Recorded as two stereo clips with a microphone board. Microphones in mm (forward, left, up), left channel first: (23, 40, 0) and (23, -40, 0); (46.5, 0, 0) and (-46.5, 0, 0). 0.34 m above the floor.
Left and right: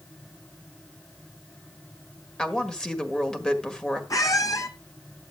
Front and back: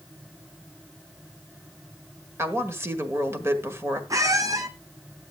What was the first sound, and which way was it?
A woman speaking, 160° left.